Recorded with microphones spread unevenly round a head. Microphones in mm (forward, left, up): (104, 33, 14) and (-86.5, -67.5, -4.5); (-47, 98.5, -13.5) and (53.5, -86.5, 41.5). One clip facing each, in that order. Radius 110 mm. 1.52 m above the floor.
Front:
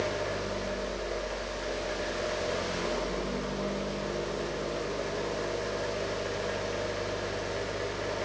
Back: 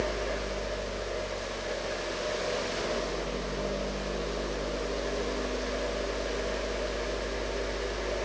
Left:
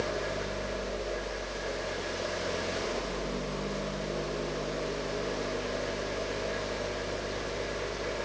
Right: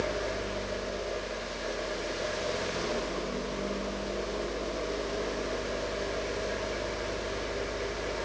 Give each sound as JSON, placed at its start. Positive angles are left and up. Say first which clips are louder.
{"t": 0.0, "sound": "a fan", "louder": "even, right 1 dB", "azimuth_deg": 25, "distance_m": 0.9}